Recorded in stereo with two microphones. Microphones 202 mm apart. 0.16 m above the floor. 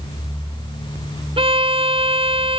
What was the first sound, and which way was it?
A violin, 25° right (ahead or behind).